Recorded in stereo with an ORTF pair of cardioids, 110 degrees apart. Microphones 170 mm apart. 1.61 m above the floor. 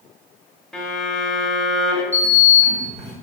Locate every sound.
0.7 s a violin: 5° left, 0.9 m
2.1 s a sliding door: 40° right, 1.7 m